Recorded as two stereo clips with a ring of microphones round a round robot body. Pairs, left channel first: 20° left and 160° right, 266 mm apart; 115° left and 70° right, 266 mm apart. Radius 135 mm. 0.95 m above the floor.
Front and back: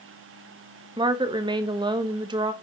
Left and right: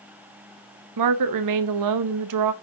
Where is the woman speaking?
85° right, 1.0 m.